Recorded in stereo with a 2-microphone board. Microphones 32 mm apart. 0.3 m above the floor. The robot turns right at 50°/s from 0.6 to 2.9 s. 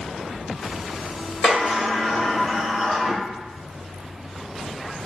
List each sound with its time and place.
1.4 s a sliding door: 20° left (ahead or behind), 1.6 m; by 3.2 s centre (ahead or behind), 1.6 m